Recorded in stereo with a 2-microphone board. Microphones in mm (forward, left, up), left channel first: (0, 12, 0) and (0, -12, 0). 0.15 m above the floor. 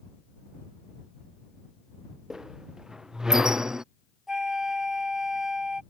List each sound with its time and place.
2.3 s a squeak: 30° right (ahead or behind)
4.3 s a flute: 25° right (ahead or behind)